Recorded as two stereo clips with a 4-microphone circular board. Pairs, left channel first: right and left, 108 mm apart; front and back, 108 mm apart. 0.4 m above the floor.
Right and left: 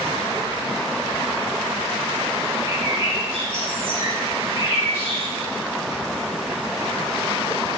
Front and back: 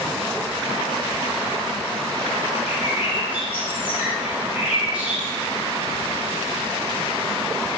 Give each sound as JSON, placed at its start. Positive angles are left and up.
{"t": 2.7, "sound": "a bird", "azimuth_deg": 105, "distance_m": 2.0}